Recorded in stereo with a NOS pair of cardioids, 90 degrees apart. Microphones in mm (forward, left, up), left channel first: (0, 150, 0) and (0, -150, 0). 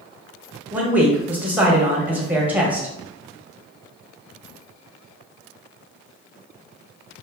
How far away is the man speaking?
About 0.9 m.